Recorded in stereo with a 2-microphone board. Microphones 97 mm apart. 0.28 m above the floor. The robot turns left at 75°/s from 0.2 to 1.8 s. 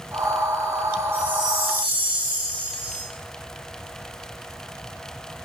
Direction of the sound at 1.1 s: 110° right.